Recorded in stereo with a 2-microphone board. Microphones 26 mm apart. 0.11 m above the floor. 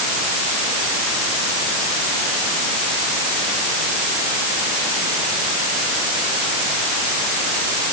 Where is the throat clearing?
I don't hear throat clearing.